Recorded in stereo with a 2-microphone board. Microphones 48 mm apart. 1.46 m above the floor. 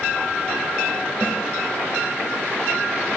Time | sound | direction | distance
1.2 | a snare drum | 40° right (ahead or behind) | 1.9 m